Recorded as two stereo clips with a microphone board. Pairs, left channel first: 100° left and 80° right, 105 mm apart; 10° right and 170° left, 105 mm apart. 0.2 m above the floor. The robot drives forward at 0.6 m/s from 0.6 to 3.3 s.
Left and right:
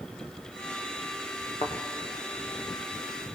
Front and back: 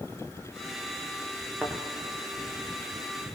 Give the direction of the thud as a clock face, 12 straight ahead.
9 o'clock.